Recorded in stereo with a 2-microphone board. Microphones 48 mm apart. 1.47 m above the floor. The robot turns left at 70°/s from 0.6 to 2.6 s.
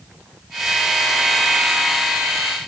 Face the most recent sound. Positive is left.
No sound to turn to.